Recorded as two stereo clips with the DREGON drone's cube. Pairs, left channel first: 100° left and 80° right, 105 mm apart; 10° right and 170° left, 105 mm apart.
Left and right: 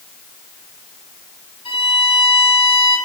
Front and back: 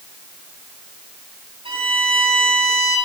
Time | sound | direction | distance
1.6 | a violin | 135° left | 7 m